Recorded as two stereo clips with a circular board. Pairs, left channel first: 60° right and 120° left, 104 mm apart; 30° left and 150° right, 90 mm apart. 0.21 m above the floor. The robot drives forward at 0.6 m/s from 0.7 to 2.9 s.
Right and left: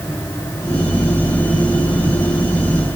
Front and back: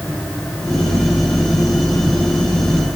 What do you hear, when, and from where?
Only background noise.